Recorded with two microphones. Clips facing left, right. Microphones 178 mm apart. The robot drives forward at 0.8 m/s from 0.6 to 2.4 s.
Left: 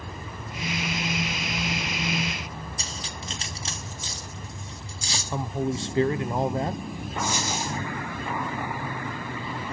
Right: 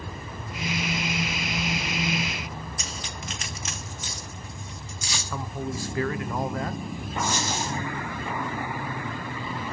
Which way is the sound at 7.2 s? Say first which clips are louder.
Even; 15° left (ahead or behind).